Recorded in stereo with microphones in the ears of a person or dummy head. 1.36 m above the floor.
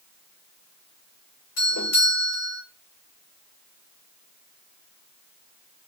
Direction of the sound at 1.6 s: 80° left.